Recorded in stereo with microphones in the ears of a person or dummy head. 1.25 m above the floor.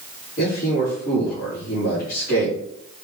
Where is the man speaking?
60° left (ahead or behind), 3.5 m.